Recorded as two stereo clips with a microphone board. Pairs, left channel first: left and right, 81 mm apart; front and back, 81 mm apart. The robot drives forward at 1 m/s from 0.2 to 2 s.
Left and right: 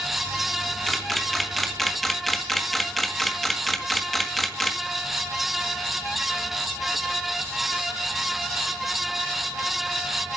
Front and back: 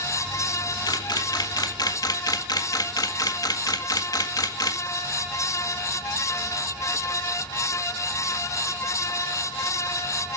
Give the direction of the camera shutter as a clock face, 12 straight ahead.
12 o'clock.